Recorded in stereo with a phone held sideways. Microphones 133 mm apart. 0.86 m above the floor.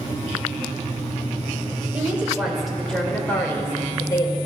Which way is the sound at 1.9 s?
10° right (ahead or behind).